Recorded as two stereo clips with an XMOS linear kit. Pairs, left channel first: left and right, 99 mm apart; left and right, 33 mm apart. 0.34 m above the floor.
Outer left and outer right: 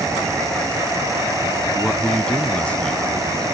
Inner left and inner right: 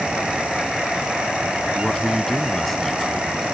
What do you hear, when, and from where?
1.7 s a man speaking: 10° left (ahead or behind)